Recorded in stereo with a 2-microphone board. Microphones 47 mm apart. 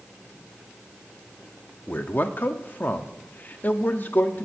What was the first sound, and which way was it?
A man speaking, 40° left (ahead or behind).